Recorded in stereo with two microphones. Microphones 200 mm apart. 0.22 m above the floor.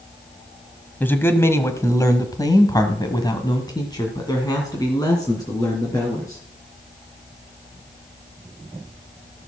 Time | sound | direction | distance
1.0 | a man speaking | 10° left (ahead or behind) | 1.4 m